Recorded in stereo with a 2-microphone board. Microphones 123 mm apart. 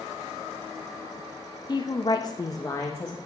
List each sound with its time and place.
1.7 s a woman speaking: 35° left (ahead or behind), 0.8 m; by 3.2 s 15° left (ahead or behind), 1.1 m